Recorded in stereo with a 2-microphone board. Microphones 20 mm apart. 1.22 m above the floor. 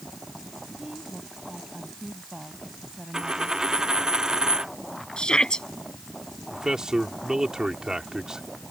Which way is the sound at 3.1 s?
35° right (ahead or behind).